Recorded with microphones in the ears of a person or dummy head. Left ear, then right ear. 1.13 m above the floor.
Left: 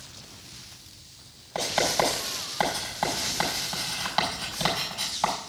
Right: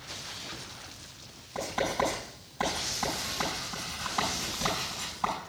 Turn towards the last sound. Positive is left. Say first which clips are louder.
# left 5 dB
turn(degrees=60)  # may be behind; listen again after turning